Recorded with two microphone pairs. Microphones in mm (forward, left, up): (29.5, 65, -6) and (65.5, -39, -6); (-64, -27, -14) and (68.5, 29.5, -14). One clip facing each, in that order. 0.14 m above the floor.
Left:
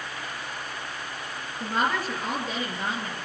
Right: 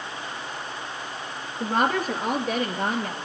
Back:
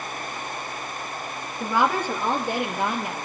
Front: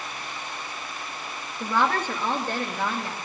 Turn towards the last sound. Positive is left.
turn(degrees=-85)